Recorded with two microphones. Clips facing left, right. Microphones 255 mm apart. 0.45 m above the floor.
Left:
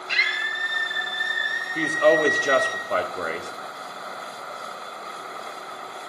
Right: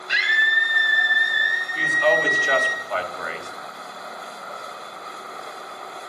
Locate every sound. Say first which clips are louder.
0.1 s a scream: right 2 dB; 15° right (ahead or behind), 2 m
1.8 s a woman speaking: left 4 dB; 45° left (ahead or behind), 1.6 m